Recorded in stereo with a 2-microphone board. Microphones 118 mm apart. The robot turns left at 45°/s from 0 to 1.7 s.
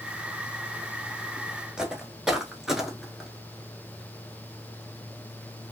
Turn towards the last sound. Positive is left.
turn(degrees=0)  # may be behind; listen again after turning